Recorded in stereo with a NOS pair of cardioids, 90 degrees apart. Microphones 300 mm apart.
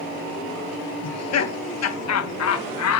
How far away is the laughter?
About 2.0 m.